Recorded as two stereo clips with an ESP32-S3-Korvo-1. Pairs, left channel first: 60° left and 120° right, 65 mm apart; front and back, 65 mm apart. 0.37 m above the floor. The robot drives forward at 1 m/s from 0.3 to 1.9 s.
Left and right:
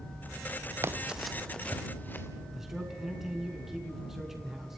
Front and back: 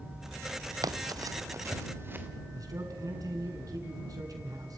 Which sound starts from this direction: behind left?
A man speaking, at 2.5 s.